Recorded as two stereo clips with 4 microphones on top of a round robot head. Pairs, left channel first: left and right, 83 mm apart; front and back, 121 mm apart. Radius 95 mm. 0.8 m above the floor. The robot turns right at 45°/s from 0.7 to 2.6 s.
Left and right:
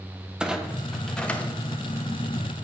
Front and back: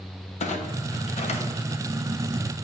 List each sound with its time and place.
0.4 s a clunk: 10° right, 0.8 m; by 1.8 s 40° left, 0.8 m